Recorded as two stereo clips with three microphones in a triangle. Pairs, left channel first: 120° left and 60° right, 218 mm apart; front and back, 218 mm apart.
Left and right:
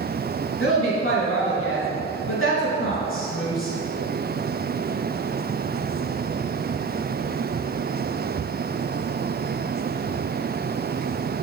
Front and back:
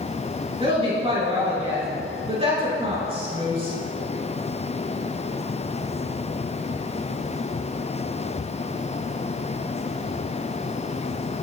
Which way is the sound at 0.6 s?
115° left.